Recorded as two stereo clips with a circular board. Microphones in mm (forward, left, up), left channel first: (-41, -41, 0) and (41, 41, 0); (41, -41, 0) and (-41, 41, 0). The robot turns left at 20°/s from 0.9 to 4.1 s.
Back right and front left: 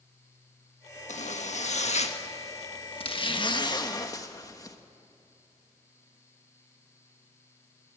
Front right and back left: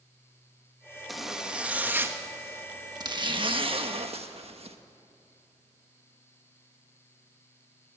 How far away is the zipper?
About 1.4 m.